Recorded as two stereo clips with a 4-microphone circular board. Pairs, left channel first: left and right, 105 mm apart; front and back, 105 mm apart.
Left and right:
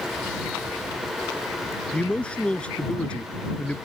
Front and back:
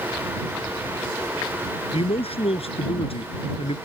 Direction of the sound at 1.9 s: 10° left.